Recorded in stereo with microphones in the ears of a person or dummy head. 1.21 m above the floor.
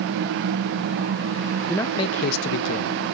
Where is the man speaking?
Centre (ahead or behind), 0.6 m; by 3.0 s 80° left, 0.9 m.